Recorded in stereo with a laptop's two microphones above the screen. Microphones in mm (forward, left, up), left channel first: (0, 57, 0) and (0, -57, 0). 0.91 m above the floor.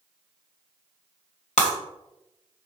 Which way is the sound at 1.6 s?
85° left.